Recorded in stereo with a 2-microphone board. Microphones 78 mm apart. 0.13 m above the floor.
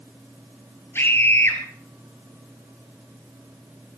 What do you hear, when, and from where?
0.9 s a scream: 30° left (ahead or behind), 3 m